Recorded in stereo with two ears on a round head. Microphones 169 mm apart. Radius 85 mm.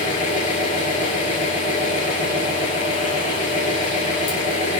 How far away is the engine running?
About 6.5 m.